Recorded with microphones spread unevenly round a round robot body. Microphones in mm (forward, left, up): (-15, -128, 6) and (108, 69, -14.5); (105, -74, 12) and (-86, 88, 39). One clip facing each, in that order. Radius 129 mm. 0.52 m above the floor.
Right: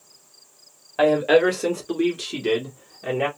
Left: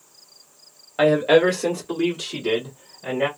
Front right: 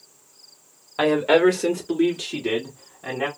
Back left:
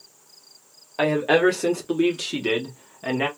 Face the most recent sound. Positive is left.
turn(degrees=180)